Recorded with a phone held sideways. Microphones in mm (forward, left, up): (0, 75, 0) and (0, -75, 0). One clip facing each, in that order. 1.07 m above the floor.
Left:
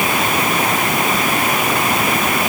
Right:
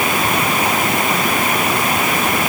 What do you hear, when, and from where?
Only background noise.